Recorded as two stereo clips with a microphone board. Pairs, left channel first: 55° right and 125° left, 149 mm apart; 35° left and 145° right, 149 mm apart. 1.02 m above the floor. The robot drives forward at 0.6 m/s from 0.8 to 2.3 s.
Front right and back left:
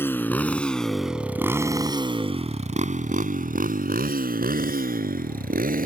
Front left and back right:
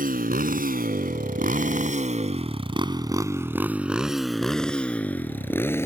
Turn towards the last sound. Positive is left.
turn(degrees=110)